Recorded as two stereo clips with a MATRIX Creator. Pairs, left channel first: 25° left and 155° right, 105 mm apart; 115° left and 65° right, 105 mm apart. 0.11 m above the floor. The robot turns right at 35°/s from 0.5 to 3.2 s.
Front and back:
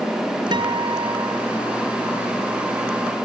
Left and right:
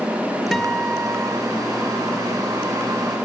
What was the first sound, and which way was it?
A guitar, 160° right.